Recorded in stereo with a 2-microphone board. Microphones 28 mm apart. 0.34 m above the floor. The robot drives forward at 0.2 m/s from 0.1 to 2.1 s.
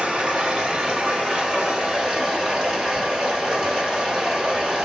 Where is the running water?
35° right (ahead or behind), 1.0 m; by 4.9 s 25° right (ahead or behind), 1.3 m.